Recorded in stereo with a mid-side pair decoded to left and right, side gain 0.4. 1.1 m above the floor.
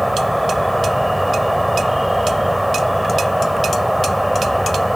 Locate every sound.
0.0 s an insect: straight ahead